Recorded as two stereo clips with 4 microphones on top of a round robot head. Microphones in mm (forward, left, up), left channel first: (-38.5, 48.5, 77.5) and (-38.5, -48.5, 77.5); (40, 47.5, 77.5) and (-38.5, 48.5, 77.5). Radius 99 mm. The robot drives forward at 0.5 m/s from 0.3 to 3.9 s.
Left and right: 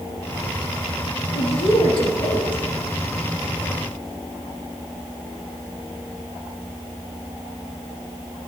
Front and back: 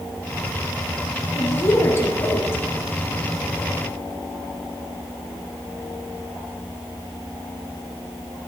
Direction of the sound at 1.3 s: 55° left.